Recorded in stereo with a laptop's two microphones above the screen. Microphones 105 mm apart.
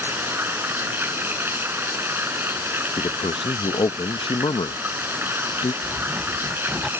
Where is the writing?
Centre (ahead or behind).